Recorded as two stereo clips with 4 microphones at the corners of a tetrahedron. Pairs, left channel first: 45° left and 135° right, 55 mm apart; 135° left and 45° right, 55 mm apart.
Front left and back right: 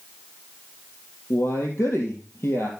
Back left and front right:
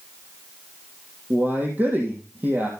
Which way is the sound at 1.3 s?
10° left.